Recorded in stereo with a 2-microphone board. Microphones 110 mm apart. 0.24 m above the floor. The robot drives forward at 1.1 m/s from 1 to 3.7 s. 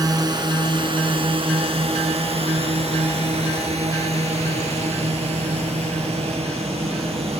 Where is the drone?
35° right (ahead or behind); by 7.4 s 65° right (ahead or behind).